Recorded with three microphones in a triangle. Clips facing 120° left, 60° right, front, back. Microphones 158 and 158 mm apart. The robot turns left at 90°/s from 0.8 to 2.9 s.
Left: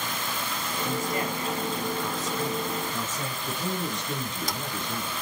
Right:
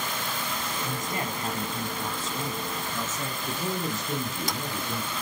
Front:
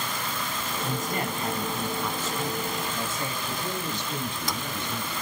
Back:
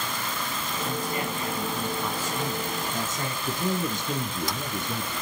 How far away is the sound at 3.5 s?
About 3 m.